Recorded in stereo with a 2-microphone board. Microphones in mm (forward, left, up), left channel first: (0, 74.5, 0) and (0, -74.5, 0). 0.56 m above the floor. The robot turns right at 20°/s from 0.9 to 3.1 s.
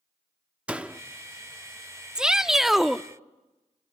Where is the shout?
5° right (ahead or behind), 0.6 m; by 3.0 s centre (ahead or behind), 0.6 m.